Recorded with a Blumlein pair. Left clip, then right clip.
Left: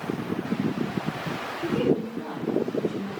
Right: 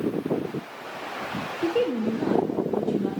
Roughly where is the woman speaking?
Ahead right.